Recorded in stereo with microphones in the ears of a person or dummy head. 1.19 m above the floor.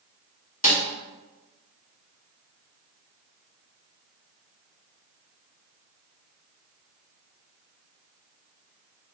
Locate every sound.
0.6 s a snare drum: 40° left (ahead or behind), 1.5 m